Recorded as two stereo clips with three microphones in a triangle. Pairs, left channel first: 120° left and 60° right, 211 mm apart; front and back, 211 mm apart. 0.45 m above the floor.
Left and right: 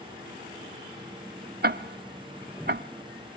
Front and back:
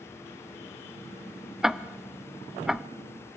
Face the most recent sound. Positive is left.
turn(degrees=-90)